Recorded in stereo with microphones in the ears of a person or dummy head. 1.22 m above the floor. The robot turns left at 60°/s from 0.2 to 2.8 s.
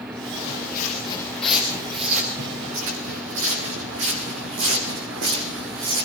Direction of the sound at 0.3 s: 70° left (ahead or behind).